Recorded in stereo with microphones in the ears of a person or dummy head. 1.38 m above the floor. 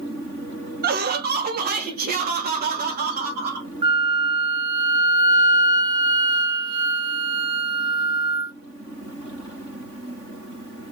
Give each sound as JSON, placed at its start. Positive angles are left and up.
{"t": 0.8, "sound": "laughter", "side_deg": -40, "distance_m": 0.6}
{"t": 3.8, "sound": "a flute", "side_deg": -25, "distance_m": 0.6}